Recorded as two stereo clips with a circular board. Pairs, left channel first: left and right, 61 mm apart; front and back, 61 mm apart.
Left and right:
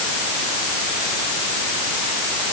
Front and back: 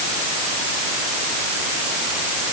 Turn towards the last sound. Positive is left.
No sound to turn to.